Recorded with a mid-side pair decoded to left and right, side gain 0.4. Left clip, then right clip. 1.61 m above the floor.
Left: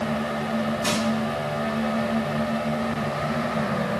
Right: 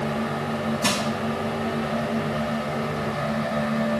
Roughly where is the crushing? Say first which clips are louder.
Right 3 dB; ahead right.